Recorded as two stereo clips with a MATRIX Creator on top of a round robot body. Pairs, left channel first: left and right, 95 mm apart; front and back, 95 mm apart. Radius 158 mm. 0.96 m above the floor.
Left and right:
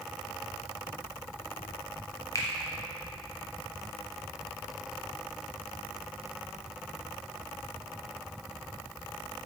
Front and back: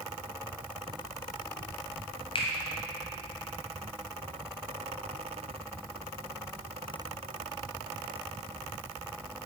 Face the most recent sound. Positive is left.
turn(degrees=30)